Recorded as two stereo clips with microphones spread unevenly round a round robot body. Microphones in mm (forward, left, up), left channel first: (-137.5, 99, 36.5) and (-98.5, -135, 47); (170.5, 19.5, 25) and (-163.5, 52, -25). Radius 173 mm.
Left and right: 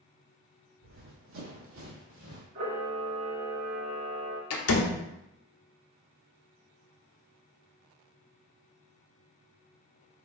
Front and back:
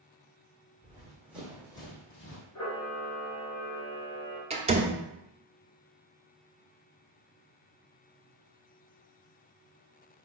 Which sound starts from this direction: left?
A door slam, at 4.5 s.